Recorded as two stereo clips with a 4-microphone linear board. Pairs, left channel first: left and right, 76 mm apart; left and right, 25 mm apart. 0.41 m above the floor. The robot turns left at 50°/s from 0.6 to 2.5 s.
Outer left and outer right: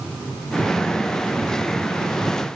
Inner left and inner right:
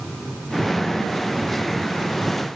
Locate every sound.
Only background noise.